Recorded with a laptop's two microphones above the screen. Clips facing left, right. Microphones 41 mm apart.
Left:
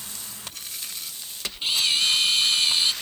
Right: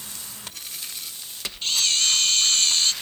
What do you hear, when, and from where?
1.6 s a camera shutter: 15° left (ahead or behind)